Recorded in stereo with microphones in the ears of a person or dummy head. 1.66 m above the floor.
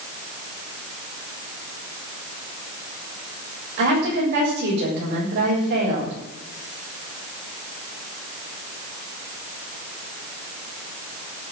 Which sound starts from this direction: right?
A woman speaking, at 3.8 s.